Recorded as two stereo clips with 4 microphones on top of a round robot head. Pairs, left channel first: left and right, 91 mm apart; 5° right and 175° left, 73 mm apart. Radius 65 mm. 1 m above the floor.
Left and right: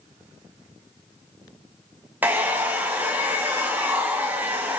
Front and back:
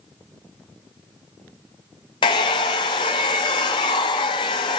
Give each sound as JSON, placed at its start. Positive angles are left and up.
{"t": 2.2, "sound": "a hair dryer", "azimuth_deg": -15, "distance_m": 1.2}